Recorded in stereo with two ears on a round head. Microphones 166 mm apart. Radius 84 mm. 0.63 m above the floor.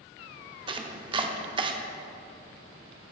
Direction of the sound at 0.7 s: 30° right (ahead or behind).